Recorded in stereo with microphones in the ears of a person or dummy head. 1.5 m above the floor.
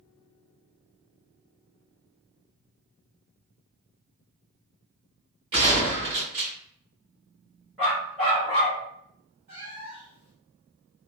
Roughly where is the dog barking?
Centre.